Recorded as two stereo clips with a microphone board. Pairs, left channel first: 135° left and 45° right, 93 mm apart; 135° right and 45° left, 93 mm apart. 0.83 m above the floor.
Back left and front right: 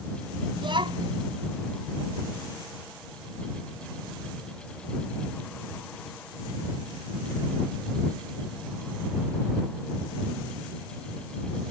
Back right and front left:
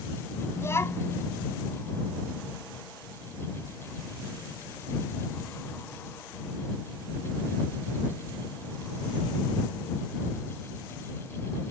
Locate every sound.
0.6 s a child speaking: 75° right